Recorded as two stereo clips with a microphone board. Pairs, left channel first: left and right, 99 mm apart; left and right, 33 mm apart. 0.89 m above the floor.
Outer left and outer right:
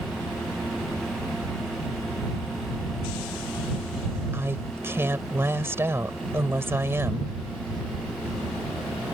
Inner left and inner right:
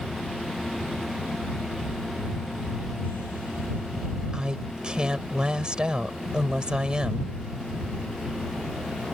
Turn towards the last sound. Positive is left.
turn(degrees=-25)  # may be behind; listen again after turning